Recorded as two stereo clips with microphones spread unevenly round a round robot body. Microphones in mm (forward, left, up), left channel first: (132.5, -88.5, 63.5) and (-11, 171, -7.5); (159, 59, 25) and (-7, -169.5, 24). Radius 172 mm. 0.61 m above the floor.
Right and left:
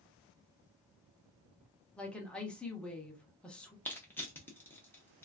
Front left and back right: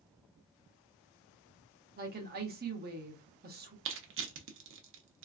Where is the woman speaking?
160° right, 0.7 m.